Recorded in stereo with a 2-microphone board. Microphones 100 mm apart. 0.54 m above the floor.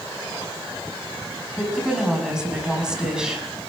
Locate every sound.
1.5 s a woman speaking: 5° right (ahead or behind), 5 m